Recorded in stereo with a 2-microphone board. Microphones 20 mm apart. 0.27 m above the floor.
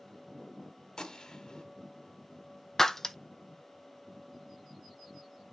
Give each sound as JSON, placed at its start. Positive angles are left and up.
{"t": 1.0, "sound": "a gunshot", "side_deg": 35, "distance_m": 1.4}
{"t": 2.8, "sound": "breaking glass", "side_deg": 15, "distance_m": 0.5}